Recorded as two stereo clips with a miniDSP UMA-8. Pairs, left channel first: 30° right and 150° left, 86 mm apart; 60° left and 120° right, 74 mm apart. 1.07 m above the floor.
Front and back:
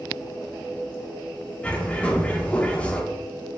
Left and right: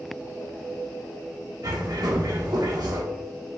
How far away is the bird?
About 1.1 m.